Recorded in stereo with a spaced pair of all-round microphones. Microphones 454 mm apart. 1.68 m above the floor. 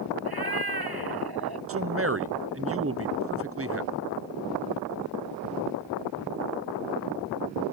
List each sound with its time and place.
0.2 s a cat meowing: 55° right (ahead or behind)
1.7 s a man speaking: 30° right (ahead or behind)